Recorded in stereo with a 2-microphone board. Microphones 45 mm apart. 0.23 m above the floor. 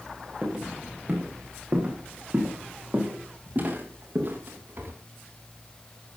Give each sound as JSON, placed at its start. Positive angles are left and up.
{"t": 0.4, "sound": "footsteps", "side_deg": -20, "distance_m": 5.0}